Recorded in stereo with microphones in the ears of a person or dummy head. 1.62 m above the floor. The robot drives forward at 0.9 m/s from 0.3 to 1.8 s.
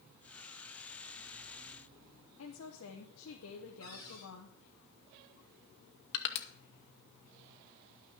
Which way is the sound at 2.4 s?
85° left.